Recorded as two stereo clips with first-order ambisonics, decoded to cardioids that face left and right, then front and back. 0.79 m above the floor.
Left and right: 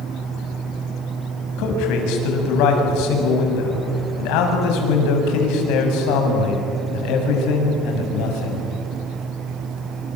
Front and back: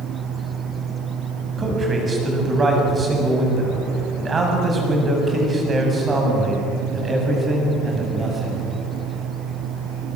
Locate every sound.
1.6 s a man speaking: 110° left, 6.5 m